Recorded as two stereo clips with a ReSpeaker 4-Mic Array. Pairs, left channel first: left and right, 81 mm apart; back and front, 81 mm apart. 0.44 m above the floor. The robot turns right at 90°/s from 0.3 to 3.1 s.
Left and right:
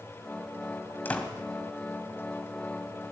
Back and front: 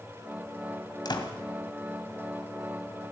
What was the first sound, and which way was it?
A door slam, 155° left.